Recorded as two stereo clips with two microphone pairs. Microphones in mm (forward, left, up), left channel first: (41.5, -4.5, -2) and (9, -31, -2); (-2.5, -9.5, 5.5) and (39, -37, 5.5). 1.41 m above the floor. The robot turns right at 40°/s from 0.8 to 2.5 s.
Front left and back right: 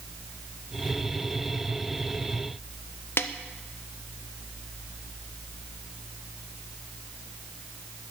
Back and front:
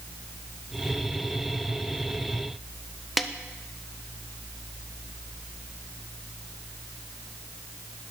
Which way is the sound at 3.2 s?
55° left.